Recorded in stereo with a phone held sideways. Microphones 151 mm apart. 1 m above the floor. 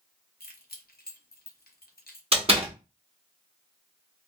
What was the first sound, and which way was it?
Keys jangling, 85° left.